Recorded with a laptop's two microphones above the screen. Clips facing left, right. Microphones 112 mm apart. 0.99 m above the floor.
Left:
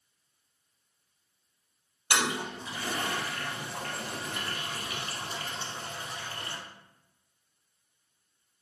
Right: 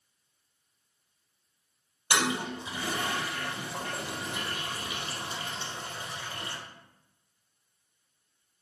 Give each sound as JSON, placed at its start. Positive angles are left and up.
{"t": 2.1, "sound": "a toilet flushing", "side_deg": -20, "distance_m": 4.0}